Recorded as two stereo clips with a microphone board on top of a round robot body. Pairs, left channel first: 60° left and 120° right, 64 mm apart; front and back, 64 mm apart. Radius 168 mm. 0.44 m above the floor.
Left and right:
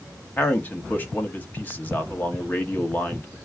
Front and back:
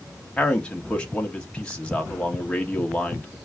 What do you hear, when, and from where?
0.4 s a man speaking: 55° left, 1.3 m